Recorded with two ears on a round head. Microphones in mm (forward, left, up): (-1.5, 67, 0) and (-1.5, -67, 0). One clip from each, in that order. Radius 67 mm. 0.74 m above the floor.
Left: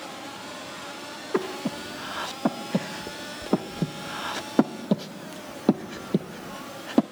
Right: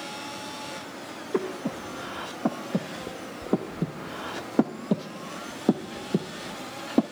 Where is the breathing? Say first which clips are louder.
Left 1 dB; 30° left (ahead or behind), 0.8 m.